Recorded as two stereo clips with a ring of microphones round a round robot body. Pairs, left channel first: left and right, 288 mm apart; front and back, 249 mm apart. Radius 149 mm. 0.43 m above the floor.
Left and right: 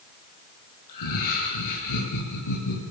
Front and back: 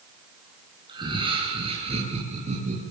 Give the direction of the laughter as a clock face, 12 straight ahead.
8 o'clock.